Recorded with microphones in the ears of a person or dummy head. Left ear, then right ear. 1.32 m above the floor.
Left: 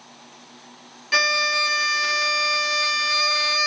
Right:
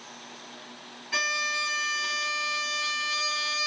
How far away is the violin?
About 1.0 m.